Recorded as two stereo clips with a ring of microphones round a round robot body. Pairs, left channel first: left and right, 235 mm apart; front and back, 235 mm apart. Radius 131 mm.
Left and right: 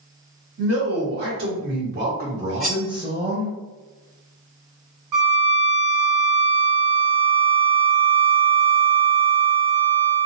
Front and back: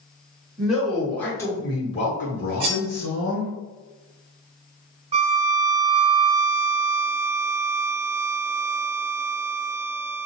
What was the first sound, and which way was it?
A man speaking, 95° right.